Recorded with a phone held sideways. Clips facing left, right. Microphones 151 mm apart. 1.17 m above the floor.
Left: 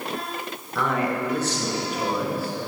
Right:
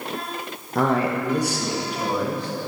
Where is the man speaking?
45° right (ahead or behind), 0.6 m; by 2.5 s 10° left (ahead or behind), 1.3 m.